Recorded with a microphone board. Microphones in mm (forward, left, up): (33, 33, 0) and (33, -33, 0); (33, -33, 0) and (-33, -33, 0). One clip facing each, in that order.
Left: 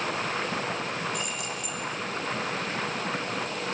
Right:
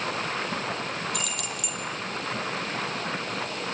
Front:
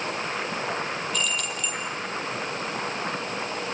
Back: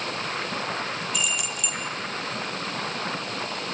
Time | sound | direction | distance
1.1 | keys jangling | 100° right | 5.5 m